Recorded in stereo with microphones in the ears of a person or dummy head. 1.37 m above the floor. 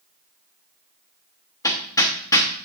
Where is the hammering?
20° left (ahead or behind), 0.8 m.